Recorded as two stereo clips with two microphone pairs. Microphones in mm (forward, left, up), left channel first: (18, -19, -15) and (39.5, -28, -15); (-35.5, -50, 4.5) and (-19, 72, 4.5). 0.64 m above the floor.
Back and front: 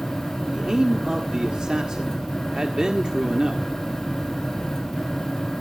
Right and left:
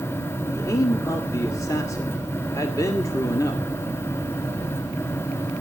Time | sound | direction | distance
0.5 | a man speaking | 45° right | 1.4 m